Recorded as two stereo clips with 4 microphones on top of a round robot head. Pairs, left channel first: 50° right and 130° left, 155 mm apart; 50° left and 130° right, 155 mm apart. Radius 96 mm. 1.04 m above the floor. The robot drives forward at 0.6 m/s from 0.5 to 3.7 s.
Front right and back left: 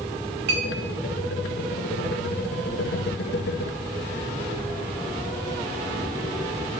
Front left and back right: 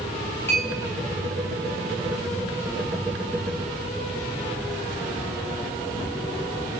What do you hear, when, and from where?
0.5 s a clink: 125° left, 4 m; by 0.7 s 130° left, 4 m